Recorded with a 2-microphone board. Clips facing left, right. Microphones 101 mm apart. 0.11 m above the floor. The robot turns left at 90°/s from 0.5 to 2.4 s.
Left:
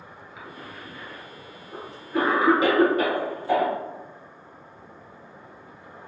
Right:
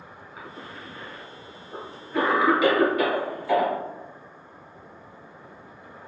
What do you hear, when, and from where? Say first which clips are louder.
0.4 s a cough: right 1 dB; 35° right (ahead or behind), 1.6 m; by 3.7 s 35° left (ahead or behind), 1.6 m